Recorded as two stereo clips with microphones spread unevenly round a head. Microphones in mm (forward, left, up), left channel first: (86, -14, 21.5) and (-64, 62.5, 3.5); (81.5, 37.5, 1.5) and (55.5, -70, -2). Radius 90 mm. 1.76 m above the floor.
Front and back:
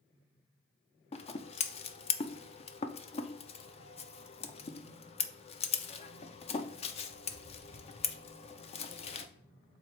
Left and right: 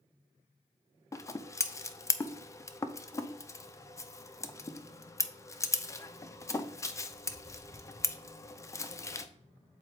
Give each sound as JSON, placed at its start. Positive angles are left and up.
{"t": 1.1, "sound": "scissors", "azimuth_deg": 20, "distance_m": 0.6}